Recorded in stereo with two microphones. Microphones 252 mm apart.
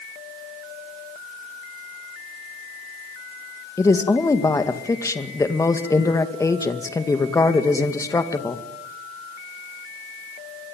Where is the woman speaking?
10° left (ahead or behind), 2 m.